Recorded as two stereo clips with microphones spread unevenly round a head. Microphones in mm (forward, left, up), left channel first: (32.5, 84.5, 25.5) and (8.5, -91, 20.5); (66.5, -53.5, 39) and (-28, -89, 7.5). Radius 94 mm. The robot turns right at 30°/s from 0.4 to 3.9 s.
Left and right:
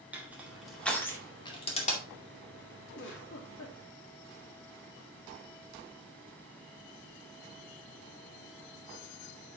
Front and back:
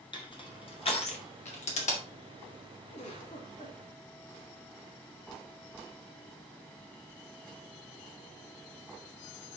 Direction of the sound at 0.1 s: 15° right.